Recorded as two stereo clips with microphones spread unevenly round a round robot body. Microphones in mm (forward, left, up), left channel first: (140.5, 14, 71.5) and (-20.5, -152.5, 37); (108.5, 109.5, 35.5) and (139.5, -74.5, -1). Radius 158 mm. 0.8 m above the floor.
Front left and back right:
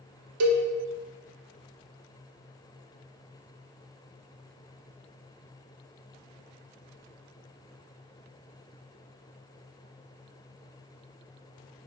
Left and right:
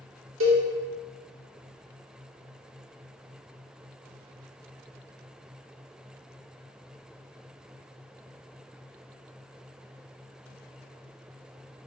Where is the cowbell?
115° right, 0.6 m.